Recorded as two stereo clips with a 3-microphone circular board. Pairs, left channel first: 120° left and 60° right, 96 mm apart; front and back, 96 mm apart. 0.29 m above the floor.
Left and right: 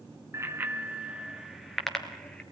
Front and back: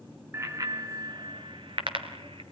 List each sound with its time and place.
0.3 s a bicycle bell: 120° right, 2 m; by 2.4 s 160° right, 3.5 m